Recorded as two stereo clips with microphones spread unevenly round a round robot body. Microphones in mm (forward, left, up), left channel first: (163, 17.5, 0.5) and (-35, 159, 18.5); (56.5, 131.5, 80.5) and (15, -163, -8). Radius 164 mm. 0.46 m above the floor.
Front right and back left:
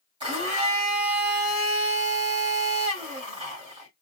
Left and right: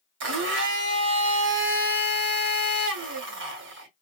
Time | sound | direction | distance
0.2 | a blender | 140° right | 1.3 m